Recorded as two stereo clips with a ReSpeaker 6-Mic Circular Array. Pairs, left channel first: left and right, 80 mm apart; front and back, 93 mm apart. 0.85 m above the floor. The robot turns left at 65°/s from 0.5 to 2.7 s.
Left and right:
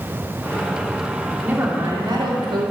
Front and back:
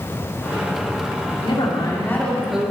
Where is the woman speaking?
20° right, 1.9 m; by 2.7 s 105° right, 1.9 m.